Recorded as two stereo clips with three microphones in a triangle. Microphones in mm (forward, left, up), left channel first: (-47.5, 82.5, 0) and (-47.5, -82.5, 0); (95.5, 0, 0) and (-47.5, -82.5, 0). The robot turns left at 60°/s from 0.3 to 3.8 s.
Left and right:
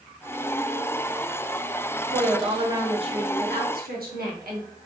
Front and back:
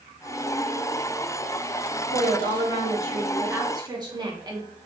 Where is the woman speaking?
20° left, 1.2 m; by 4.7 s 85° right, 1.2 m.